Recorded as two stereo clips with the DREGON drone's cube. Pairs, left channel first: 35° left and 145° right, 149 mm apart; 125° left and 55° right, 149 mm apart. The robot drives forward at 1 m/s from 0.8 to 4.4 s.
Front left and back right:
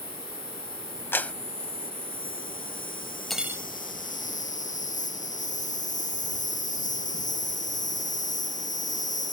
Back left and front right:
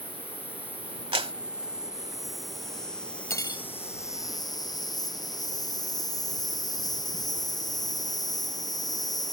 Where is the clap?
35° right; by 1.3 s 45° right.